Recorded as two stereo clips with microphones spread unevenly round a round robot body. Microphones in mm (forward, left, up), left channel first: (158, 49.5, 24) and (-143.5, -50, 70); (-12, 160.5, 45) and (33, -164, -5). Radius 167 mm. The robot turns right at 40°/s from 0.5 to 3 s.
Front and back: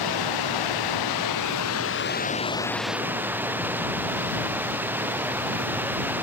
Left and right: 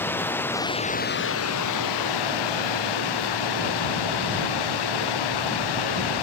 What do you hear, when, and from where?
0.0 s running water: 15° left; by 6.2 s 115° left